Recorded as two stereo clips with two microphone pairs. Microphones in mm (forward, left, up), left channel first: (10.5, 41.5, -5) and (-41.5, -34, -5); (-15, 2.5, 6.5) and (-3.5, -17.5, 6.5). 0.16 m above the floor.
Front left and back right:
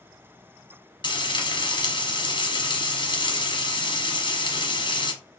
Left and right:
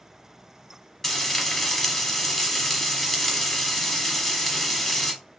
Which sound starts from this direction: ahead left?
Frying, at 1.0 s.